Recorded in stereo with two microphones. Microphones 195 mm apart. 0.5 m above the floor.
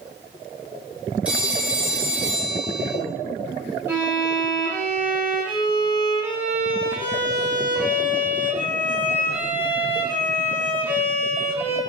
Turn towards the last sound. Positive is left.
turn(degrees=-10)  # may be behind; listen again after turning